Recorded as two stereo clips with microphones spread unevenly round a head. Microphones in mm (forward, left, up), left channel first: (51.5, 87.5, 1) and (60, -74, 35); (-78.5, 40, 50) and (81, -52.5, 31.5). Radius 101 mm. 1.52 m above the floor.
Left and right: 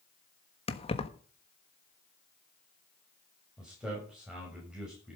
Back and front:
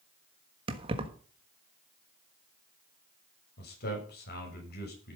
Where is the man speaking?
175° right, 6.5 m.